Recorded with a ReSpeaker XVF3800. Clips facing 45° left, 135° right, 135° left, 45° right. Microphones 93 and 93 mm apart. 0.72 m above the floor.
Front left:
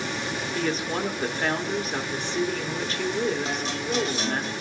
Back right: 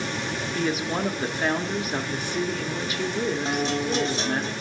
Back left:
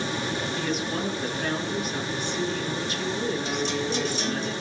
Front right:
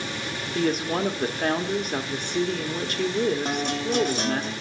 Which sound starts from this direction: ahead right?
A woman speaking, at 0.6 s.